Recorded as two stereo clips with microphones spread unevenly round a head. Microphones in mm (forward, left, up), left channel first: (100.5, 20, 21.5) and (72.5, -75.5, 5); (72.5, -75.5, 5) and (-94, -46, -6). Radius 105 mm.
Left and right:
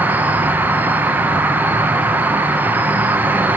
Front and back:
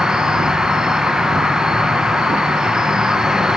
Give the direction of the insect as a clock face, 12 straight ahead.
4 o'clock.